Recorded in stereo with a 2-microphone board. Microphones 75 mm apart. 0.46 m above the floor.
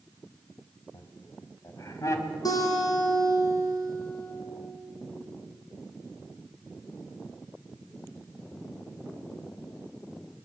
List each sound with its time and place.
0.9 s laughter: 55° left (ahead or behind), 2.5 m; by 2.4 s 40° left (ahead or behind), 3 m
2.5 s a guitar: 50° left (ahead or behind), 6.5 m